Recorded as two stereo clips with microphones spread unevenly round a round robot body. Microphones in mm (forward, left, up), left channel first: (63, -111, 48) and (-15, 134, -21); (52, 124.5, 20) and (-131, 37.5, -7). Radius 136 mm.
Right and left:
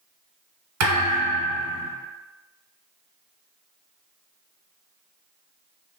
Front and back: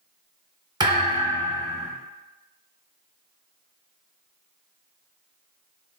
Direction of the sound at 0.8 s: 135° left.